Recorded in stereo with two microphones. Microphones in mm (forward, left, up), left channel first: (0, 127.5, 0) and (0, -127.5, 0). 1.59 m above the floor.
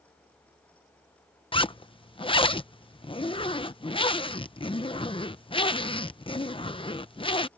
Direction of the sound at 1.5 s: 20° left (ahead or behind).